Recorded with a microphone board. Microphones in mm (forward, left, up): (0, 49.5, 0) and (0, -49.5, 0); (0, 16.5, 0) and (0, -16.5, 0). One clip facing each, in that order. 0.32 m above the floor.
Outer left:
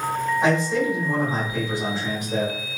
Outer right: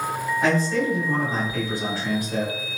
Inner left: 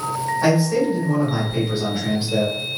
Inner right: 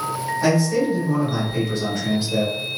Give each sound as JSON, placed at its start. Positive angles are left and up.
{"t": 0.4, "sound": "a man speaking", "side_deg": 20, "distance_m": 1.4}